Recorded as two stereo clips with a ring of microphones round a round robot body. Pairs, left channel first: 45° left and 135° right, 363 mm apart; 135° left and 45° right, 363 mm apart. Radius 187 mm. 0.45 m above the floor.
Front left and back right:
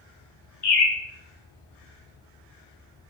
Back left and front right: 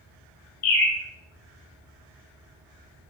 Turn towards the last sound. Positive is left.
turn(degrees=85)